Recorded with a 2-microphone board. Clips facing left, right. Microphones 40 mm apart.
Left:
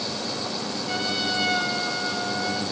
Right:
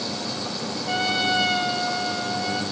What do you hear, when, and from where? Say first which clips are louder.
0.9 s a trumpet: right 5 dB; 30° right (ahead or behind), 4 m